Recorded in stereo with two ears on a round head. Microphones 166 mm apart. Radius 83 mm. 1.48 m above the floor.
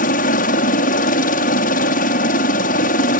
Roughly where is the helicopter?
Left.